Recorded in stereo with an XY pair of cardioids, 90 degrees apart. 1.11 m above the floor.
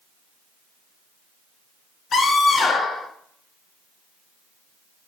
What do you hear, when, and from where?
2.1 s a scream: 60° left, 3.5 m